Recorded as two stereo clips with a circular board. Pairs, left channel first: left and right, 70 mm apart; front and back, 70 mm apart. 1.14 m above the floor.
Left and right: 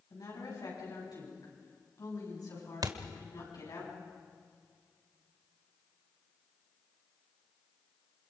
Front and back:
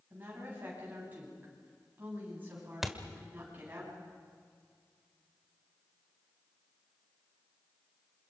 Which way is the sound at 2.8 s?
95° right.